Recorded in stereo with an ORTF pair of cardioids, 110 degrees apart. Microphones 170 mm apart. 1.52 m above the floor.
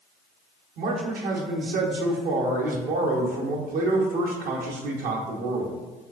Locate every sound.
0.8 s a man speaking: 60° right, 0.9 m